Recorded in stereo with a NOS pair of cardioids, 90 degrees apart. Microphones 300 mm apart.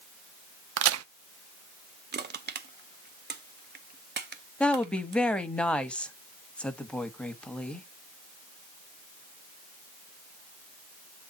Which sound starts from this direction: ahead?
A woman speaking, at 4.6 s.